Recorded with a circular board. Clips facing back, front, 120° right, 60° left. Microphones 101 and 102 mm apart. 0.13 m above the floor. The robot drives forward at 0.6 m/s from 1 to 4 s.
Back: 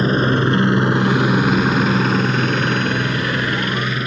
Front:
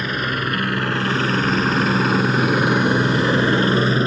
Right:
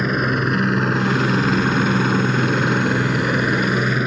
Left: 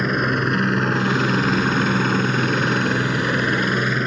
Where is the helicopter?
150° left; by 4.1 s 40° right.